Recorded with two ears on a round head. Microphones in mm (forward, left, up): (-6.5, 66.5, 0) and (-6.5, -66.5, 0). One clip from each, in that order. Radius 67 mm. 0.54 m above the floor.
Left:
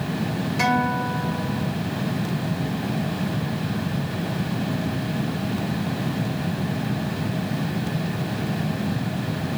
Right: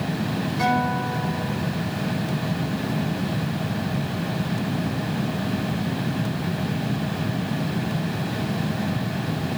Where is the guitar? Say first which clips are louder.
Left 1 dB; 60° left (ahead or behind), 4 m.